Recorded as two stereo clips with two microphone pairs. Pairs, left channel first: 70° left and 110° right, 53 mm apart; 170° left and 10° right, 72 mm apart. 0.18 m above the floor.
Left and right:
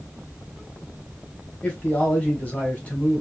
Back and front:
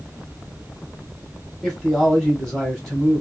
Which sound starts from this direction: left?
A man speaking, at 1.6 s.